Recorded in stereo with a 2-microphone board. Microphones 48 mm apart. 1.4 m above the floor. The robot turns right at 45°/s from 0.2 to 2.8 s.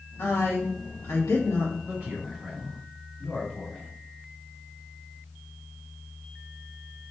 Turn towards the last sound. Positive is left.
turn(degrees=10)